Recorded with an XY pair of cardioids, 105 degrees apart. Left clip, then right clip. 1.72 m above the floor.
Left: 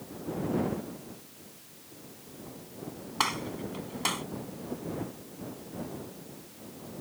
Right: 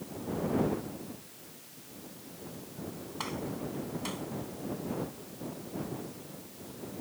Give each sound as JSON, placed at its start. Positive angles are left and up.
{"t": 3.2, "sound": "a gunshot", "azimuth_deg": 70}